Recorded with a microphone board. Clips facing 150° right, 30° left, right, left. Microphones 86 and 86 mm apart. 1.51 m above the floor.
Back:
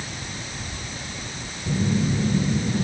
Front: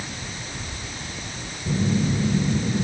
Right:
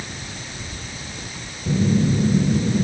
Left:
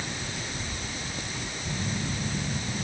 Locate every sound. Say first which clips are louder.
1.7 s a phone buzzing: even, right 15 dB; 60° right